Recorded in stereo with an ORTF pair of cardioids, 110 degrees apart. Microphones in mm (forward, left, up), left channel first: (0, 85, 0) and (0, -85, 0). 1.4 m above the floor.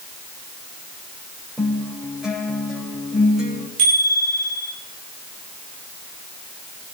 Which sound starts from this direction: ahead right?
A bicycle bell, at 3.8 s.